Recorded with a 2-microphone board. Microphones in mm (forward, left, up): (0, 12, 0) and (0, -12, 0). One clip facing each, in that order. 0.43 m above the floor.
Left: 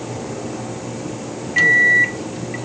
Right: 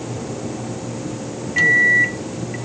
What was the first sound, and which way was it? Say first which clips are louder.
A microwave: left 1 dB; 10° left (ahead or behind).